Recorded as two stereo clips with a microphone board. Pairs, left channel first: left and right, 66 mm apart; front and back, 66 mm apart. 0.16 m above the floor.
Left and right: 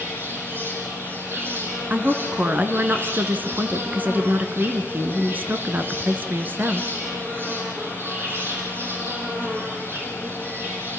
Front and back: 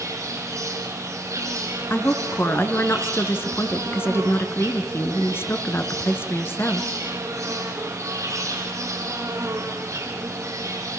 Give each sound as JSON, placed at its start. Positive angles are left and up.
{"t": 0.0, "sound": "an insect", "azimuth_deg": -145, "distance_m": 5.5}
{"t": 1.9, "sound": "a woman speaking", "azimuth_deg": -40, "distance_m": 2.0}